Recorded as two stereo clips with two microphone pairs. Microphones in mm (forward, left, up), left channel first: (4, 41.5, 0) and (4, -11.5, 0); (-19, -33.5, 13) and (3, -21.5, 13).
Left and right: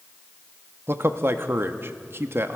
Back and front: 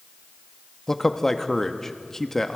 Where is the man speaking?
85° right, 0.8 m.